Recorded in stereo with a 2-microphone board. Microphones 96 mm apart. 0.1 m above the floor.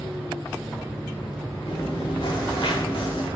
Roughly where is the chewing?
Left.